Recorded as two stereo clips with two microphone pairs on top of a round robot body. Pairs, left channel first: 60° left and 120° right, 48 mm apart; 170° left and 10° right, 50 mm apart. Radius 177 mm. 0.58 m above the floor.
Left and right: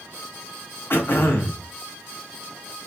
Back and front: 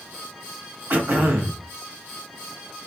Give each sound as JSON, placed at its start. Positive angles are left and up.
{"t": 0.9, "sound": "throat clearing", "azimuth_deg": 40, "distance_m": 1.3}